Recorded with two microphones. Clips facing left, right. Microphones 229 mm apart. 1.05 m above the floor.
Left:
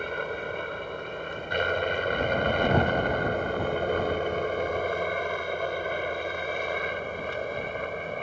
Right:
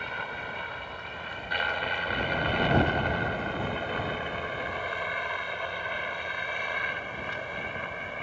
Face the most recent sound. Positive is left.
turn(degrees=45)  # may be behind; listen again after turning